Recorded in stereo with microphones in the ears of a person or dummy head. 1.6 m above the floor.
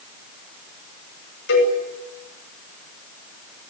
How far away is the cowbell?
About 9 m.